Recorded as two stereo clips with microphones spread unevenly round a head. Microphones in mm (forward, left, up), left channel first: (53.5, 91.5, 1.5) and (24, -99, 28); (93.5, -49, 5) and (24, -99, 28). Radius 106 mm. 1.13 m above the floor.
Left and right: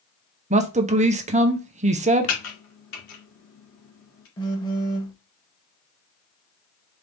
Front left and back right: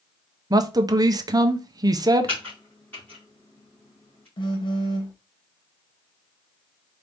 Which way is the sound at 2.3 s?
120° left.